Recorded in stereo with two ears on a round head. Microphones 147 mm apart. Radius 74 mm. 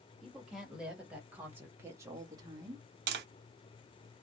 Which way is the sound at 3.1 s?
70° right (ahead or behind).